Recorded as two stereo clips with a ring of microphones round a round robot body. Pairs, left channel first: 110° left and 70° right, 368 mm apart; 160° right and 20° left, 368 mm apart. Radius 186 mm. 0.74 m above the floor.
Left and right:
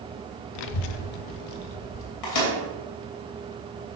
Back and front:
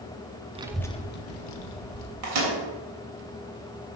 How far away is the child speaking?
About 0.7 m.